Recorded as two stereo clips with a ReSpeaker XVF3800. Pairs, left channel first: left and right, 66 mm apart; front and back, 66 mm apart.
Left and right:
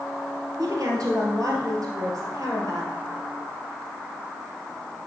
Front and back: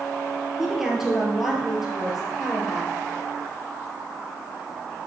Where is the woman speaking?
95° right, 2.5 m.